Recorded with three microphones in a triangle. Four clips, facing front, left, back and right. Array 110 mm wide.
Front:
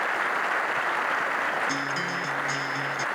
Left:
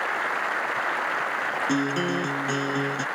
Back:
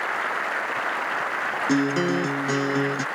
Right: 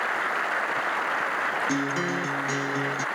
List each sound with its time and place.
1.7 s a guitar: 170° left